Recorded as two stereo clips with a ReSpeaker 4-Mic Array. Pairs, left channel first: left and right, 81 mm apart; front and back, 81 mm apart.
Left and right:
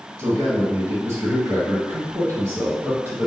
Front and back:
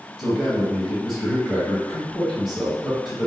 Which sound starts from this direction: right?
A man speaking, at 0.2 s.